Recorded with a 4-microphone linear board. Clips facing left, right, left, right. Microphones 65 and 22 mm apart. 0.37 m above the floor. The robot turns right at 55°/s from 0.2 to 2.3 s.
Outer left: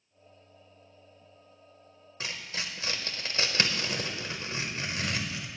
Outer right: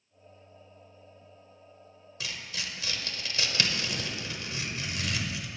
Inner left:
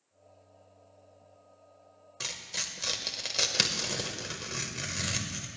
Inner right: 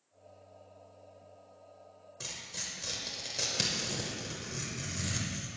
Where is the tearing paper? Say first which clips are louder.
Outer left 1 dB, inner left 5 dB; 35° left (ahead or behind), 0.8 m.